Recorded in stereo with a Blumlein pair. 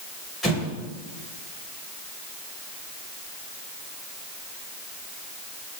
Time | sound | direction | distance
0.4 | an explosion | 5° left | 2.5 m